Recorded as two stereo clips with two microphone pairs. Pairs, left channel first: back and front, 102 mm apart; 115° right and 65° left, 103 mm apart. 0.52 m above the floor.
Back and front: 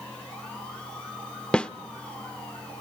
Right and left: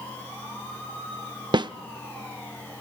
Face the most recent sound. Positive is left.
turn(degrees=100)